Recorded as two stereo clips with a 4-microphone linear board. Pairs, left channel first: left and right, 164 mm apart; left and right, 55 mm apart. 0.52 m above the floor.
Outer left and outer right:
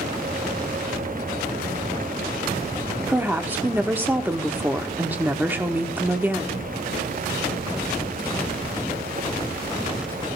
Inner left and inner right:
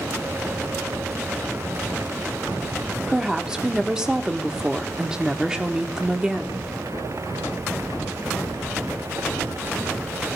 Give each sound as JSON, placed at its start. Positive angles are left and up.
{"t": 3.1, "sound": "a woman speaking", "side_deg": -10, "distance_m": 1.3}